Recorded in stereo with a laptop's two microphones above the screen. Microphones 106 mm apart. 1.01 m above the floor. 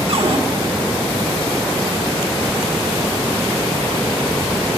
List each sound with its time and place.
0.1 s a cupboard door: 60° right (ahead or behind), 0.9 m